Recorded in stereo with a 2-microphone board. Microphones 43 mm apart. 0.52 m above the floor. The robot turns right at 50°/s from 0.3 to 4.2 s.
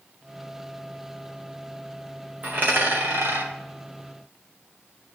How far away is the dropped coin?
About 2.5 m.